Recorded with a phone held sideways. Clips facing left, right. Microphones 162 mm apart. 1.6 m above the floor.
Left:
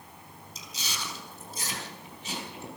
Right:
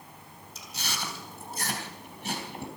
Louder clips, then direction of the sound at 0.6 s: Right 3 dB; 70° right (ahead or behind).